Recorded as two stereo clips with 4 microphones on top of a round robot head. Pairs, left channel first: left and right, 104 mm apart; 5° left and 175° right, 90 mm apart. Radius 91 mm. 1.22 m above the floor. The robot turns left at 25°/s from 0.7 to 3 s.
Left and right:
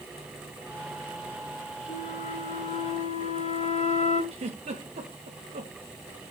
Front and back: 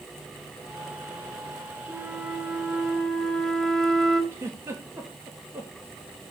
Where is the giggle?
110° right, 2.5 m.